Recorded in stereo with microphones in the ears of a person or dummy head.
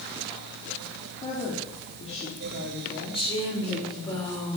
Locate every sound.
1.2 s a woman speaking: 30° left (ahead or behind), 4 m
3.1 s a woman speaking: 25° left (ahead or behind), 5 m